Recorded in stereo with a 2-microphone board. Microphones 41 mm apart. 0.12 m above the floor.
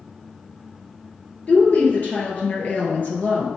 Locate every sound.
1.5 s a woman speaking: 40° left (ahead or behind), 2.5 m